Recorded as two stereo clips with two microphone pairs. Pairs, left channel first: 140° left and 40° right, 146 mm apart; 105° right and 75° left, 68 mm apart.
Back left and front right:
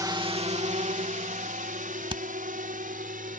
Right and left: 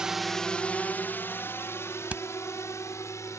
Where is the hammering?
5° left.